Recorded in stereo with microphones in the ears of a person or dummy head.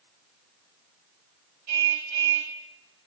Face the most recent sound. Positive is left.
turn(degrees=-70)  # may be behind; listen again after turning